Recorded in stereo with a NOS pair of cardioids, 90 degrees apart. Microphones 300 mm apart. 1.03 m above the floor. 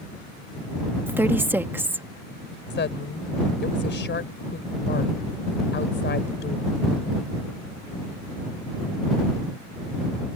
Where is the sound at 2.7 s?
35° left.